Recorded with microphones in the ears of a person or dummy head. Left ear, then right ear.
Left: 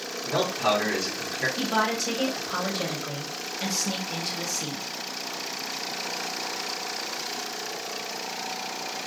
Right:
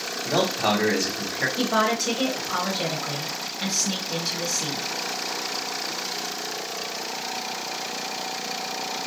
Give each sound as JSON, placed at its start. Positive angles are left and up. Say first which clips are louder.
{"t": 0.2, "sound": "a man speaking", "louder": "right 2 dB", "side_deg": -65, "distance_m": 1.2}
{"t": 1.6, "sound": "a woman speaking", "louder": "right 4 dB", "side_deg": 5, "distance_m": 0.9}